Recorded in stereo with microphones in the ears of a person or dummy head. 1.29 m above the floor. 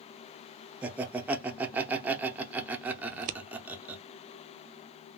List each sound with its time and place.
0.8 s laughter: 10° right (ahead or behind), 0.6 m
3.1 s scissors: 45° right (ahead or behind), 0.5 m